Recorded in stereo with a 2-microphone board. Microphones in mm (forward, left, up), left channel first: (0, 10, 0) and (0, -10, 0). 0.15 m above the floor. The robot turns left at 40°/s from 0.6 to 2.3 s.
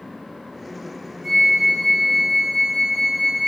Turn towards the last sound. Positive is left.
turn(degrees=-160)